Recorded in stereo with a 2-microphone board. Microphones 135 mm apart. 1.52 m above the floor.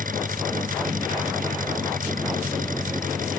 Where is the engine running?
85° right.